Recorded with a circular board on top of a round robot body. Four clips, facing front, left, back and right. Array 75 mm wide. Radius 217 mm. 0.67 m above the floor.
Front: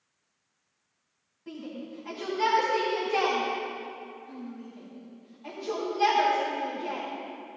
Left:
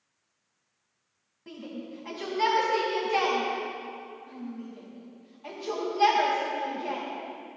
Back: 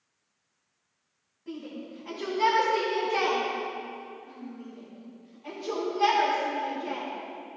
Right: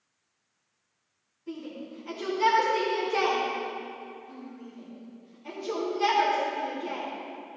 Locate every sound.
1.5 s a shout: 80° left, 6 m